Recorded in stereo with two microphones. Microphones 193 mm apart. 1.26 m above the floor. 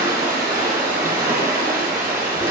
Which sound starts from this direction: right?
Running water, at 0.0 s.